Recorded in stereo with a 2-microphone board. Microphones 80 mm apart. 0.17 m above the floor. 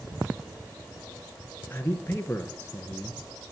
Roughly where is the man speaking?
Left.